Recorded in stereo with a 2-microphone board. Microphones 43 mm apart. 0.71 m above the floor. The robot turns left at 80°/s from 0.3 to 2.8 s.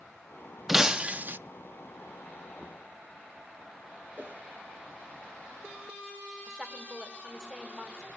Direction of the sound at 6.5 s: 15° right (ahead or behind).